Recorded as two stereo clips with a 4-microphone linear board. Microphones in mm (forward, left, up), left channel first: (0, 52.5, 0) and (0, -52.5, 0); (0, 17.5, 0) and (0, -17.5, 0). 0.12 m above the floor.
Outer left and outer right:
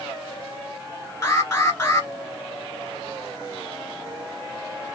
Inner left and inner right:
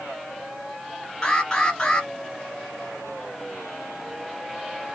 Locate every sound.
1.2 s an alarm: 25° left (ahead or behind), 1.6 m